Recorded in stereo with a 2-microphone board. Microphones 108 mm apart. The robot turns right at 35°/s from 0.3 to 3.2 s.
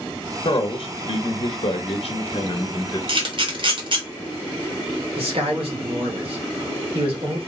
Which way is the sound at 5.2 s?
60° right (ahead or behind).